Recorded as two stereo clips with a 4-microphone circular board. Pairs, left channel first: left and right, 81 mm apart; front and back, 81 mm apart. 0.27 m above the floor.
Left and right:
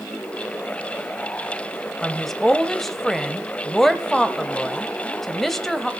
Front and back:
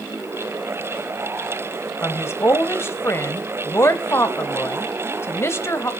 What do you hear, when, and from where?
2.0 s a woman speaking: 5° left, 1.1 m